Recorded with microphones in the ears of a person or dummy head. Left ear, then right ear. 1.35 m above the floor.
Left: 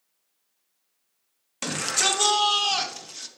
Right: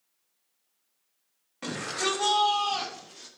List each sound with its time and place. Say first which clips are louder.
1.6 s a shout: left 5 dB; 80° left, 2.5 m; by 3.3 s 50° left (ahead or behind), 2.5 m